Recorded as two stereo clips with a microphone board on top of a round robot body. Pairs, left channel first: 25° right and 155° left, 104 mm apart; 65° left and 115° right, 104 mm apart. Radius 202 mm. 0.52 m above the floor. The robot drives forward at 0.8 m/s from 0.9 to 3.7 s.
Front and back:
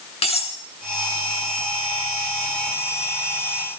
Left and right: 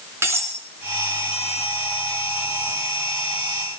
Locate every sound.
0.2 s cutlery clinking: 45° right, 5 m